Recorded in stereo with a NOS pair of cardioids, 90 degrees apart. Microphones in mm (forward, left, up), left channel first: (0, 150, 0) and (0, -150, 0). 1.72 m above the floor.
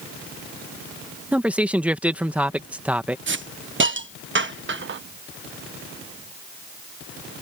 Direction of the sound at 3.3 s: 40° right.